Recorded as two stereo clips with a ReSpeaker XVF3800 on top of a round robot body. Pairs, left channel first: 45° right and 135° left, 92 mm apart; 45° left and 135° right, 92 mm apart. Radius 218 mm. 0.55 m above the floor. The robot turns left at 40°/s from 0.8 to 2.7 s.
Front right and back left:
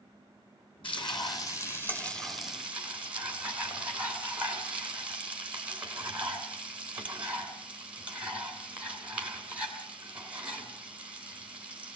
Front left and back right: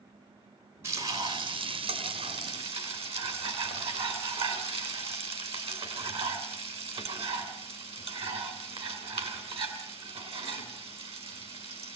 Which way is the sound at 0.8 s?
75° right.